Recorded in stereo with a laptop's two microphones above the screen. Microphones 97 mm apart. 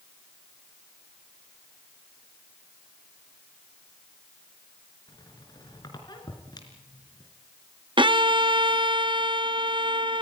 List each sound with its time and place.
5.1 s a squeak: 45° left (ahead or behind), 3.5 m
8.0 s a violin: 55° right (ahead or behind), 0.7 m